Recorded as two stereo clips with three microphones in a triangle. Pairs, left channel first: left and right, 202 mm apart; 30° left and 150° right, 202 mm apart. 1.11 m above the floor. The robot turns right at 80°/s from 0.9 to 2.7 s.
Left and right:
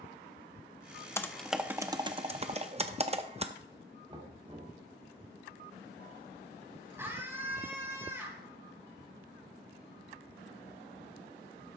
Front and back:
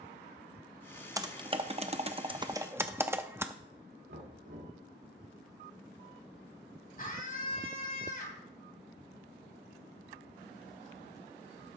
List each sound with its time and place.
1.2 s typing on a keyboard: 155° left, 0.6 m; by 3.5 s 80° right, 0.6 m
4.1 s knocking: 155° right, 2 m
7.0 s a scream: 15° right, 2.5 m